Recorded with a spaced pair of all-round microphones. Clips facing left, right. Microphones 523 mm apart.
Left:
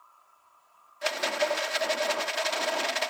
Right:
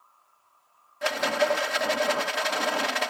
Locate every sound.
1.0 s a rattle: 70° right (ahead or behind)